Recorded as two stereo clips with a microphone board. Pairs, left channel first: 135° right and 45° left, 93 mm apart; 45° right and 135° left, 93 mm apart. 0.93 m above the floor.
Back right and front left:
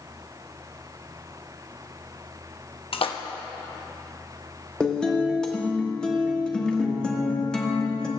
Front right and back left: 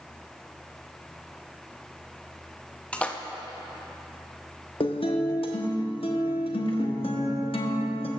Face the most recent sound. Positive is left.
turn(degrees=-55)